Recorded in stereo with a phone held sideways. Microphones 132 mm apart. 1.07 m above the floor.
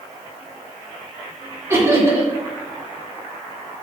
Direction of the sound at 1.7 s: 20° right (ahead or behind).